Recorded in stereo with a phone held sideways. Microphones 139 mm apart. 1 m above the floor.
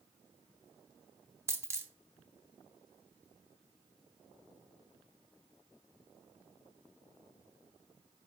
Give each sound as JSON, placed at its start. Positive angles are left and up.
{"t": 1.5, "sound": "a dropped coin", "side_deg": -20, "distance_m": 1.0}